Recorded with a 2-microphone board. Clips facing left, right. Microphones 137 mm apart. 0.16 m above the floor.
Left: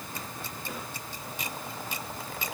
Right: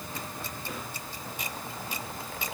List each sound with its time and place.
Only background noise.